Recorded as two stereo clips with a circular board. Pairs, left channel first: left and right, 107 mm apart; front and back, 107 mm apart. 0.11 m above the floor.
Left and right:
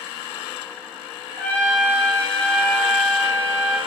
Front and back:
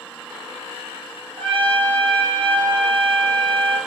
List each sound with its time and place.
1.4 s a trumpet: 165° left, 0.8 m